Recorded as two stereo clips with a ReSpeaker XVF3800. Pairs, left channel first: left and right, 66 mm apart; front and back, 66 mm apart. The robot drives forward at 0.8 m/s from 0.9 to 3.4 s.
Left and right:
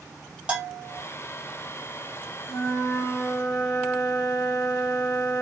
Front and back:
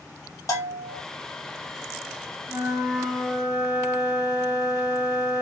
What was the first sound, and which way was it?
A bell, 20° right.